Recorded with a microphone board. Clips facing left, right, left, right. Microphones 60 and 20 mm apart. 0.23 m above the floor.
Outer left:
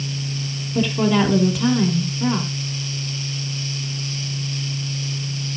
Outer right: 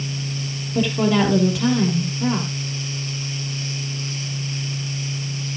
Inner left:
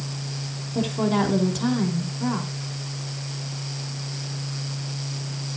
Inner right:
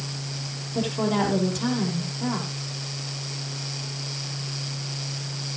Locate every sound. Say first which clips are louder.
0.8 s a woman speaking: even, inner left 1 dB; centre (ahead or behind), 6 m